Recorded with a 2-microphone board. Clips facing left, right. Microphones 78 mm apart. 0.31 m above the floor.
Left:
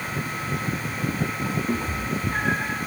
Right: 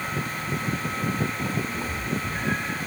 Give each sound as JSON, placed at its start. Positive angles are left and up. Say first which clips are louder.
{"t": 1.7, "sound": "a cat meowing", "louder": "left 3 dB", "side_deg": 60, "distance_m": 3.5}